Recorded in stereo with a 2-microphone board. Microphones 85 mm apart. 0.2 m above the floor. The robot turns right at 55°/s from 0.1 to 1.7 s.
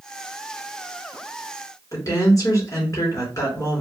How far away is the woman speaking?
About 3 m.